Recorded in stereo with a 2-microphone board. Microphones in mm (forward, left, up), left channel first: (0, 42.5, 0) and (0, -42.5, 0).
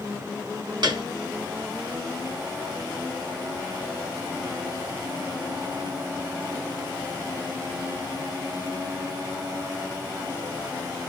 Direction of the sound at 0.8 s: 55° right (ahead or behind).